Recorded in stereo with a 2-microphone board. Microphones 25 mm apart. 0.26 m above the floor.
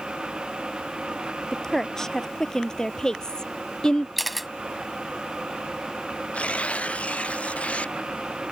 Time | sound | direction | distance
1.5 | a woman speaking | 20° left (ahead or behind) | ?
4.2 | a camera shutter | centre (ahead or behind) | ?
6.3 | tearing paper | 60° left (ahead or behind) | ?